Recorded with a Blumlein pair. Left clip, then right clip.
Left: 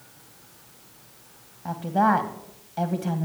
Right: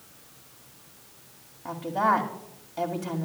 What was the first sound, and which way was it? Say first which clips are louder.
A woman speaking: left 2 dB; 10° left.